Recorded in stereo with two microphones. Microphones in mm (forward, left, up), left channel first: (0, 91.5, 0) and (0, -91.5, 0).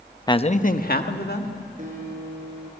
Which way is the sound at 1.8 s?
45° right (ahead or behind).